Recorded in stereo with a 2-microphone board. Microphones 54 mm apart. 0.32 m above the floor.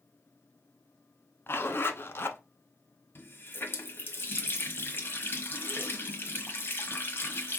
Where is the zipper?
45° left (ahead or behind), 0.8 m.